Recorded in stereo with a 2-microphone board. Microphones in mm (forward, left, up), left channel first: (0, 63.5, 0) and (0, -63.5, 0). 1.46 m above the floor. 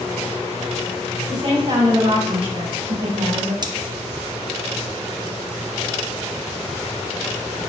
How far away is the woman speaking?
About 3.5 m.